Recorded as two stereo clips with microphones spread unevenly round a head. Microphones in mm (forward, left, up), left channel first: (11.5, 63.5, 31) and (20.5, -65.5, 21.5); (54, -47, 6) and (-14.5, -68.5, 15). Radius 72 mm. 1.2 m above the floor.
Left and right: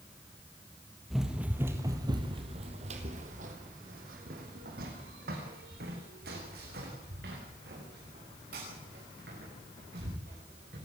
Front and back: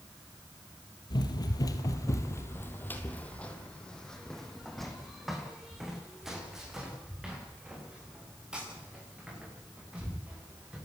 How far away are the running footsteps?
About 2.5 m.